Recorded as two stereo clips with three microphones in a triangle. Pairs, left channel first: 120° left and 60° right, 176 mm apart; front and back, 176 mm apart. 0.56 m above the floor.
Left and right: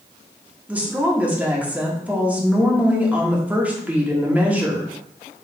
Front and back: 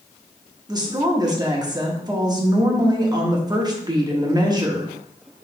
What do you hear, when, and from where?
0.7 s a woman speaking: 135° right, 0.9 m